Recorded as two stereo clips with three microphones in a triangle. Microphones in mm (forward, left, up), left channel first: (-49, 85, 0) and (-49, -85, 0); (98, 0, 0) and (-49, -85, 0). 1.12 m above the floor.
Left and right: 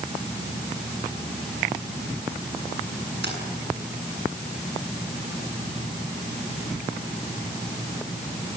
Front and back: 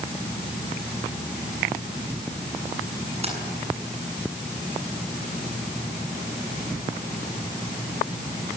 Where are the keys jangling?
95° right, 8 m.